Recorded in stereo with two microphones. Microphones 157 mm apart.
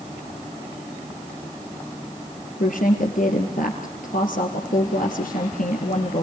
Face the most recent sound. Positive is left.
turn(degrees=65)  # may be behind; listen again after turning